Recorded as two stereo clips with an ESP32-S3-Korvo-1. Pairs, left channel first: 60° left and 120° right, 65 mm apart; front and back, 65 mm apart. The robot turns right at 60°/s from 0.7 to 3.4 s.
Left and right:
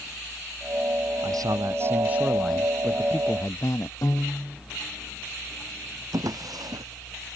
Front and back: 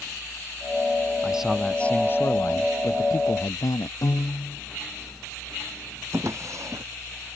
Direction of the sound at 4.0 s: 25° left.